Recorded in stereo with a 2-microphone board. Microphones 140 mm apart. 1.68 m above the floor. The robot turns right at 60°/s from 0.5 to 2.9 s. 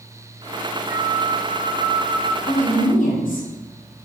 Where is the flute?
110° left, 0.7 m; by 2.4 s 160° right, 0.7 m.